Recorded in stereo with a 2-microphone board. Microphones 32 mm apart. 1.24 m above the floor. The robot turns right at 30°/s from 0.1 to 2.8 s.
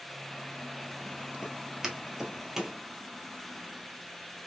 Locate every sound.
1.4 s footsteps: 20° right (ahead or behind), 1.4 m; by 2.8 s 15° right (ahead or behind), 1.5 m